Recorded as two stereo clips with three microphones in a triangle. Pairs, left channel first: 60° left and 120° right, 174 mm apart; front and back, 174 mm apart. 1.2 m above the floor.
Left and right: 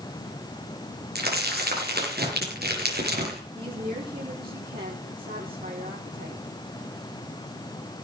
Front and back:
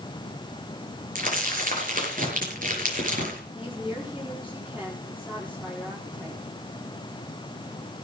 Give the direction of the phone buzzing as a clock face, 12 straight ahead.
No phone buzzing in this recording.